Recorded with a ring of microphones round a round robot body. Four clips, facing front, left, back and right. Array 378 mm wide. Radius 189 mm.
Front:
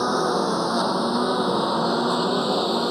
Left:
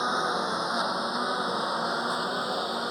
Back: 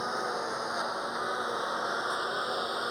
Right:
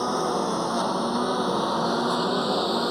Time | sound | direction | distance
0.0 | a lawn mower | 20° right | ?